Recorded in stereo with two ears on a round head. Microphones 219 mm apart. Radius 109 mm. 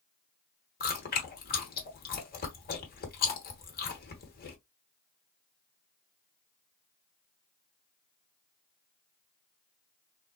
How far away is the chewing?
About 1.2 m.